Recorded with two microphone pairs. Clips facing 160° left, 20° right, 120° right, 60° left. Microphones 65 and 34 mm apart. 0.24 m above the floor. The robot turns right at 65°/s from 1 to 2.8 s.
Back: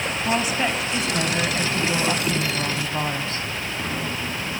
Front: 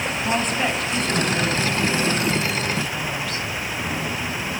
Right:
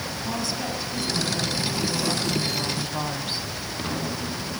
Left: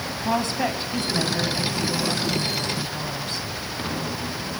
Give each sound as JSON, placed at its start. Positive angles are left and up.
{"t": 0.1, "sound": "a woman speaking", "azimuth_deg": 80, "distance_m": 1.8}